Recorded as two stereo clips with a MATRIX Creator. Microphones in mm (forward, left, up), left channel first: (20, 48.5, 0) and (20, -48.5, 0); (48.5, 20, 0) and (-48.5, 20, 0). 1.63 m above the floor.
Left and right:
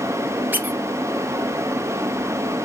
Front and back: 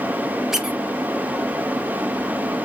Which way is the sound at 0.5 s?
105° right.